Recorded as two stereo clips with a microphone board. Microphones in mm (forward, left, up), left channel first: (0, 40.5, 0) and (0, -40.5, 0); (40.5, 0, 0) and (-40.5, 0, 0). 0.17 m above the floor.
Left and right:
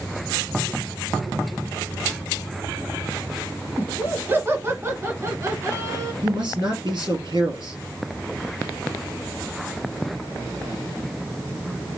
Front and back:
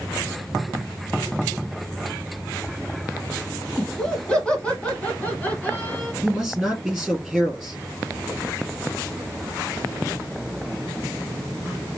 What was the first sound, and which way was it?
Laughter, 75° right.